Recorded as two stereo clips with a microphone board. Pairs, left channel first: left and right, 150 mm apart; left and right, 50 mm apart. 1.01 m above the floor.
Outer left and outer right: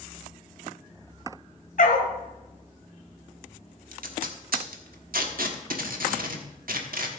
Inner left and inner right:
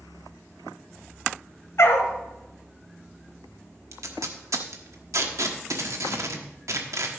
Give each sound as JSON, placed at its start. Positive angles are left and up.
{"t": 1.8, "sound": "a dog barking", "side_deg": 65, "distance_m": 1.4}
{"t": 3.9, "sound": "tape being pulled", "side_deg": -75, "distance_m": 1.2}